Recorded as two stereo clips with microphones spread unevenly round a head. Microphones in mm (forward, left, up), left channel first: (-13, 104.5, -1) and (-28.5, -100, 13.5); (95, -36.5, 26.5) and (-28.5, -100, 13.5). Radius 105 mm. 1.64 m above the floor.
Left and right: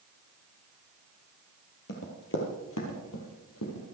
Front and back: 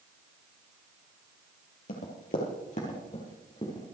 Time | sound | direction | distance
1.9 | running footsteps | 45° left | 3 m